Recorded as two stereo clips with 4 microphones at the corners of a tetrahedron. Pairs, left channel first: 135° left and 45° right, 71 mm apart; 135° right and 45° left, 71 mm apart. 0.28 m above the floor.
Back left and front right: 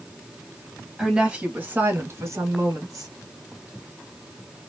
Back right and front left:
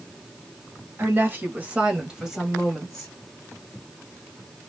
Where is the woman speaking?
35° left, 1.3 m; by 3.1 s 55° right, 1.9 m.